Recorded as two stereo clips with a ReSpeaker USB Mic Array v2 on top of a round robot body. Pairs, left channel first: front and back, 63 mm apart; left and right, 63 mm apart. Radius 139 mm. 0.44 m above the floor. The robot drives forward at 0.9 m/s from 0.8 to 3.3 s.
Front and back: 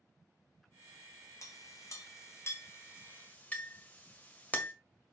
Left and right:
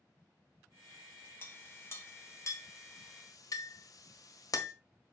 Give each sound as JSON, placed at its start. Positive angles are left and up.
{"t": 1.4, "sound": "a clink", "azimuth_deg": 35, "distance_m": 3.0}